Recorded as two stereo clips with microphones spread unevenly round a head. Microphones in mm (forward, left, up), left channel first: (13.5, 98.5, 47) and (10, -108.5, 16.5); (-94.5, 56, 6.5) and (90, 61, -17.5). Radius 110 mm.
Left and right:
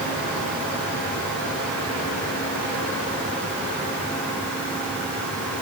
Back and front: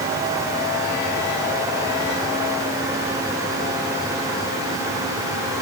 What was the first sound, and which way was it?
Only background noise.